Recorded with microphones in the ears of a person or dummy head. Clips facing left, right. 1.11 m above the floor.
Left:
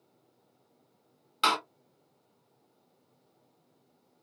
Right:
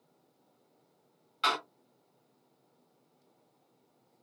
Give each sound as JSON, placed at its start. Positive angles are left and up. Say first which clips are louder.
{"t": 1.4, "sound": "a door slam", "louder": "left 3 dB", "side_deg": 80, "distance_m": 2.5}